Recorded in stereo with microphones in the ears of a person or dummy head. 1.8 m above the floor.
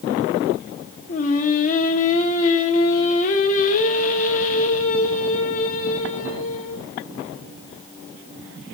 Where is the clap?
I don't hear a clap.